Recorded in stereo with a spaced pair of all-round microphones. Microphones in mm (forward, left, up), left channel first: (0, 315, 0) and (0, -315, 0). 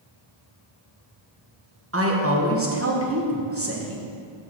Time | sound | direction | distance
1.9 | a woman speaking | 20° right (ahead or behind) | 1.1 m